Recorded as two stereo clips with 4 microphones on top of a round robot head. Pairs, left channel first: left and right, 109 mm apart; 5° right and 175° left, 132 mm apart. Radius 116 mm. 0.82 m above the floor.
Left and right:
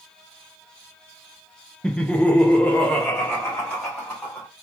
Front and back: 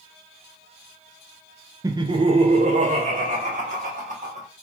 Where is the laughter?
160° left, 0.7 m; by 4.5 s 165° left, 2 m.